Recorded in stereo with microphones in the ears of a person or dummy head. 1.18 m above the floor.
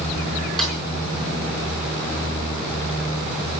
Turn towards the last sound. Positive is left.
turn(degrees=0)  # may be behind; listen again after turning